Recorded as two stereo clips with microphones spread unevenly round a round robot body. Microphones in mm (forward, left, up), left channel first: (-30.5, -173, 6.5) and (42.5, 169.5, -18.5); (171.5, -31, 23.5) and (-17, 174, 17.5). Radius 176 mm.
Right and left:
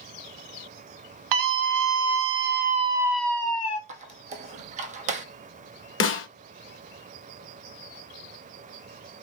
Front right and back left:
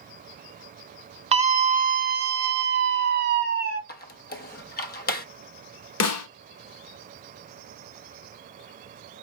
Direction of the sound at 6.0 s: 50° right.